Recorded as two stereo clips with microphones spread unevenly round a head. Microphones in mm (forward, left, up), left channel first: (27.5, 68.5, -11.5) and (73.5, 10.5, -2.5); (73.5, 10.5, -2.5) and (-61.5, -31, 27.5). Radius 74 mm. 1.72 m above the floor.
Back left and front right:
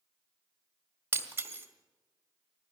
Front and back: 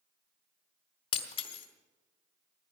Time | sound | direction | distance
1.1 | breaking glass | 30° right | 1.8 m